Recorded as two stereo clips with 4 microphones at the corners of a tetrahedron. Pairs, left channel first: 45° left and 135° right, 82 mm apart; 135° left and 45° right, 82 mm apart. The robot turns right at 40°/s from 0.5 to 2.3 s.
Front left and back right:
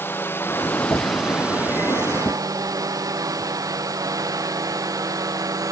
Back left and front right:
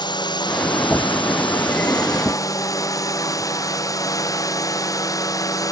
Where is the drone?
110° left; by 5.7 s straight behind.